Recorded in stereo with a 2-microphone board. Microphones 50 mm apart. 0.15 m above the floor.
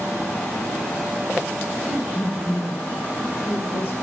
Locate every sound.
1.9 s a woman speaking: 5° right (ahead or behind), 4 m; by 3.9 s 30° left (ahead or behind), 4 m